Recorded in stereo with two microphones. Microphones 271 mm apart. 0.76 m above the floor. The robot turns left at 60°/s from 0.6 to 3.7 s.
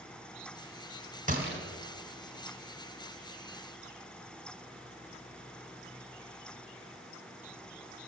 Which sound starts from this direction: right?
A gunshot, at 1.3 s.